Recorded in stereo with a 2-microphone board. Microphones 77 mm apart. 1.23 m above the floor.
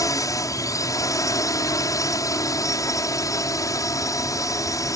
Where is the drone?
45° left (ahead or behind).